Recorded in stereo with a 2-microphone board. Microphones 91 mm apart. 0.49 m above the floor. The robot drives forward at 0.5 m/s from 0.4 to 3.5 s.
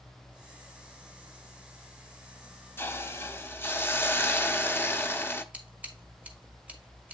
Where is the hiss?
25° left (ahead or behind), 0.5 m.